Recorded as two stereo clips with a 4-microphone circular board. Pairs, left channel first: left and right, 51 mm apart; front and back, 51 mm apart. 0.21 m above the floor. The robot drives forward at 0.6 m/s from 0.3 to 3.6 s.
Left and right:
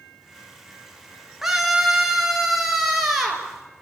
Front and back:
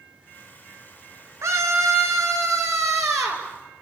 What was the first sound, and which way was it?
A scream, 170° right.